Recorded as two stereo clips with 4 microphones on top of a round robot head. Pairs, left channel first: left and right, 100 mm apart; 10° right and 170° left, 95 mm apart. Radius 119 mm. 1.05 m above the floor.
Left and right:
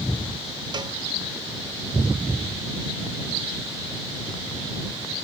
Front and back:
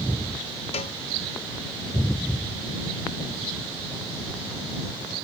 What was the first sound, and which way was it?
A cowbell, 35° right.